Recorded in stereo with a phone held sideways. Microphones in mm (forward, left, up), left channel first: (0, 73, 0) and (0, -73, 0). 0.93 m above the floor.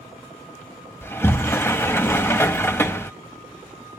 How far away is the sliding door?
About 0.7 m.